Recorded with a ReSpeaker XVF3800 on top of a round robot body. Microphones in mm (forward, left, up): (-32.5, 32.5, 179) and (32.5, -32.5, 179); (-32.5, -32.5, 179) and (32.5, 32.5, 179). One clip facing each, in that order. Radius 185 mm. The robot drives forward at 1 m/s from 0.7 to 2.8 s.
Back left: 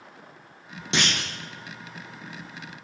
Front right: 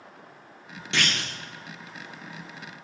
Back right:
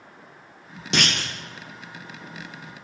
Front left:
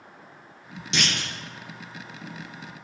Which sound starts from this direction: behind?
A clunk, at 0.9 s.